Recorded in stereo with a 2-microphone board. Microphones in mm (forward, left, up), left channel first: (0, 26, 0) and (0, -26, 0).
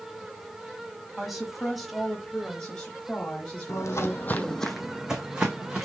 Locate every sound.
1.2 s a woman speaking: 5° right (ahead or behind), 1.2 m; by 4.6 s 20° left (ahead or behind), 2.0 m
3.7 s footsteps: 75° left (ahead or behind), 0.6 m; by 5.8 s 25° right (ahead or behind), 1.4 m